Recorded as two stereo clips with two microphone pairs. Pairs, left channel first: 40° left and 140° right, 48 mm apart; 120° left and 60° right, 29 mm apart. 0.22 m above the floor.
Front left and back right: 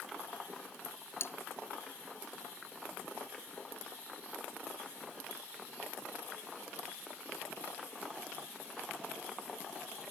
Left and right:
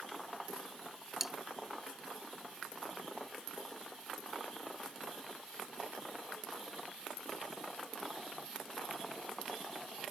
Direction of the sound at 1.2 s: 15° left.